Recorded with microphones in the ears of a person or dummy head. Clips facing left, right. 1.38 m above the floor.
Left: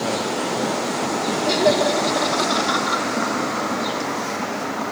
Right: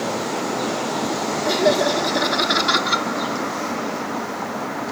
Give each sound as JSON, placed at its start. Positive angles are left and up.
{"t": 1.4, "sound": "laughter", "side_deg": -5, "distance_m": 3.5}